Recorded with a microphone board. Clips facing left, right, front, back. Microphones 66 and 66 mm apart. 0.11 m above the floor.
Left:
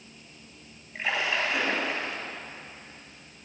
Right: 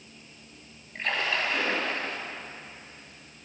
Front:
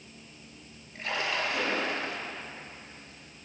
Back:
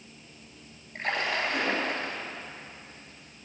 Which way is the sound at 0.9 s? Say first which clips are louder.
Left 1 dB, back 2 dB; 165° left.